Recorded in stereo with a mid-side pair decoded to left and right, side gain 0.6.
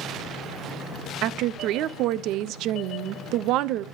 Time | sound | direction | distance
1.2 | a woman speaking | 65° right | 0.5 m